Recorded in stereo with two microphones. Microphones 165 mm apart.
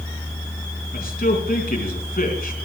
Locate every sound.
0.9 s a man speaking: 65° left (ahead or behind), 3.5 m